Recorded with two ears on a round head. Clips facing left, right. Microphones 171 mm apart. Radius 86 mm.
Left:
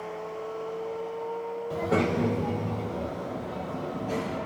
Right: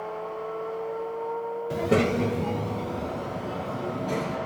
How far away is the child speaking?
About 0.7 m.